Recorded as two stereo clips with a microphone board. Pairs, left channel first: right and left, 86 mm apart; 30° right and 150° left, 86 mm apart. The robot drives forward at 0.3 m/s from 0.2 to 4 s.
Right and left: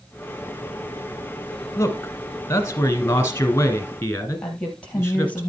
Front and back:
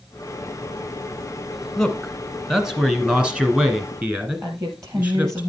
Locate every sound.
1.8 s a man speaking: 110° right, 1.2 m; by 5.4 s 145° right, 1.5 m
4.4 s a woman speaking: 165° right, 3.5 m